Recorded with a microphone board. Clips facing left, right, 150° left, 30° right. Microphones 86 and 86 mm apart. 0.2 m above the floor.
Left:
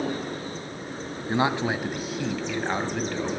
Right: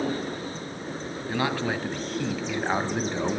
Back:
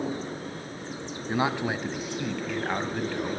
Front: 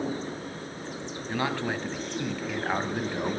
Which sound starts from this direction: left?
A man speaking, at 1.3 s.